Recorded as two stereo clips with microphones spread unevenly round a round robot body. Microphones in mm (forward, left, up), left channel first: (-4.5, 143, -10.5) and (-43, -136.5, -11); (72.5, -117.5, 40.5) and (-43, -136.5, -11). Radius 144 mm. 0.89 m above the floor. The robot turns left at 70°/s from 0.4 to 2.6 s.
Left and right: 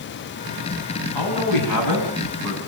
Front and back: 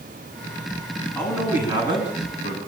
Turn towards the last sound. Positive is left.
turn(degrees=-15)